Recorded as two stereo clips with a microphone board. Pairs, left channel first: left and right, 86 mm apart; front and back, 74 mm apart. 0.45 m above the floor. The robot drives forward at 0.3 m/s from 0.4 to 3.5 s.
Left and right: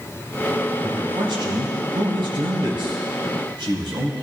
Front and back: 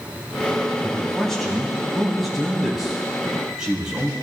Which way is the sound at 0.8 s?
80° right.